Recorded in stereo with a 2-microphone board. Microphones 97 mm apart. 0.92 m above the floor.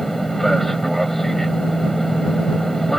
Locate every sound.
0.0 s an aircraft: 5° left (ahead or behind)